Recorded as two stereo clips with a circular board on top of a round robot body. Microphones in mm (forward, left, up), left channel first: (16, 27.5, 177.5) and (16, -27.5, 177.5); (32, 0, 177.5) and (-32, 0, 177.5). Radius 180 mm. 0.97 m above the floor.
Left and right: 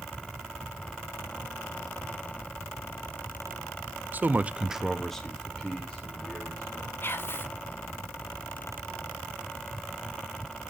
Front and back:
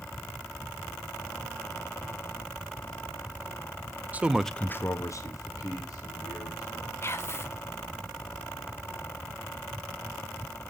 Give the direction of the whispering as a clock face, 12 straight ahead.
10 o'clock.